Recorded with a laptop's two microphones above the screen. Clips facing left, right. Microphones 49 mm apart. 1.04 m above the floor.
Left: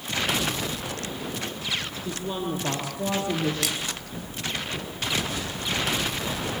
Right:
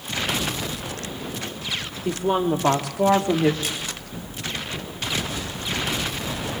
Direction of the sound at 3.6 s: 80° left.